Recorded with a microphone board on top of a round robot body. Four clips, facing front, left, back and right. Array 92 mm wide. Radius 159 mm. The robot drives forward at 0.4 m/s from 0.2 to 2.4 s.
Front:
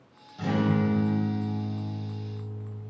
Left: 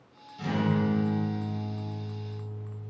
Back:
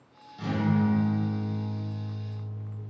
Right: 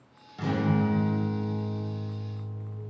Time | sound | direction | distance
0.4 | a guitar | 80° right | 1.4 m